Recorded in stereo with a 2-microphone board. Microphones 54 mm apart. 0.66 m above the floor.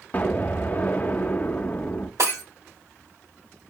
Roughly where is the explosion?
Left.